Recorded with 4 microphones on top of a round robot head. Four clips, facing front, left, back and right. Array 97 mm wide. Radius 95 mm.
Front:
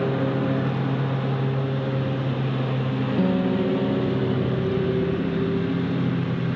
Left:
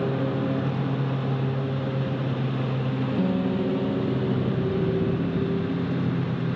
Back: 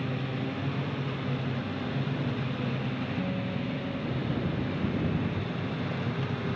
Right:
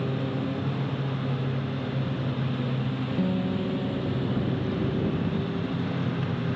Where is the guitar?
10° left.